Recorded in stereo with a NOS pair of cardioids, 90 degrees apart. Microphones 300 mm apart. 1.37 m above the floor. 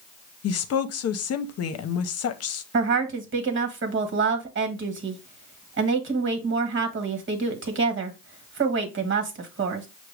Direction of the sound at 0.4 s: 55° left.